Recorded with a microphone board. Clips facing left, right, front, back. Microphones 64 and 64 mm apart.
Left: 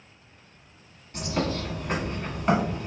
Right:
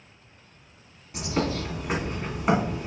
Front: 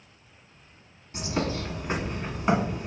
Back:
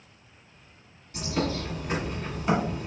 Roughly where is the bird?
Ahead right.